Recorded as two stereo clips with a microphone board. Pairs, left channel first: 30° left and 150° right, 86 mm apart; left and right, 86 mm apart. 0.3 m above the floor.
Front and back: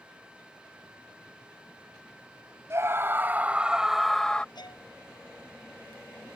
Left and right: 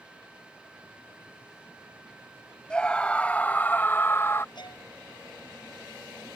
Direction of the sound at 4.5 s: 60° left.